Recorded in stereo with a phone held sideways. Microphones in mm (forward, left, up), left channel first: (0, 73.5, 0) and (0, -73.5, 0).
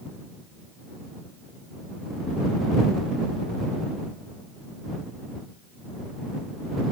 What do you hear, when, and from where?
Only background noise.